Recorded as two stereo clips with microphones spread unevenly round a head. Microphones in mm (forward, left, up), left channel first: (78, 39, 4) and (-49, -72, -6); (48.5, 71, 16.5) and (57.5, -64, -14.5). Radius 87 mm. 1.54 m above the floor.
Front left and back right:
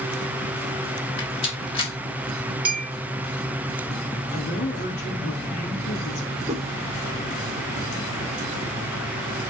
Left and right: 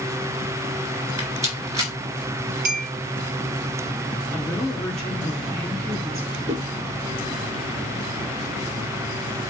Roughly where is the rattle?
Ahead.